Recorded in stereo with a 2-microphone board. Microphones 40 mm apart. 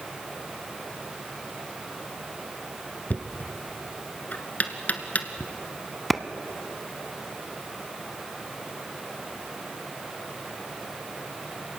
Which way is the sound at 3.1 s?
45° left (ahead or behind).